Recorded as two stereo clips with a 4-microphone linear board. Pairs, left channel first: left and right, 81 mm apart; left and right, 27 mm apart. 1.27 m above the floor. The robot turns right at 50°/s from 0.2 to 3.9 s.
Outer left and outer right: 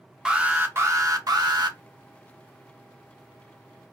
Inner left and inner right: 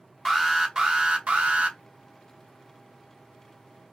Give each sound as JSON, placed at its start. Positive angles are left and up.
{"t": 0.2, "sound": "an alarm", "azimuth_deg": -170, "distance_m": 0.7}